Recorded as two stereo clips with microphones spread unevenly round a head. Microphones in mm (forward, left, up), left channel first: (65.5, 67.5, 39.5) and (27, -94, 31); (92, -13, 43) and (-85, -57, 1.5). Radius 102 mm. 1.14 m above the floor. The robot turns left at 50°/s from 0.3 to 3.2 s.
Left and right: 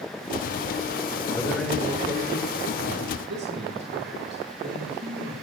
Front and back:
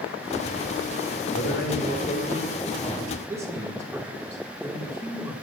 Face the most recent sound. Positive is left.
turn(degrees=-90)